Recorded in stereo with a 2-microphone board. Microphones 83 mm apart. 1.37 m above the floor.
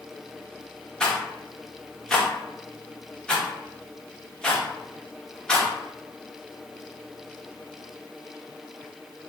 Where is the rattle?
10° left (ahead or behind), 0.9 m.